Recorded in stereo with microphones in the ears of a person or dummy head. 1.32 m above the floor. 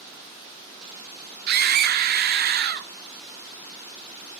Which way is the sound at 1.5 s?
45° right (ahead or behind).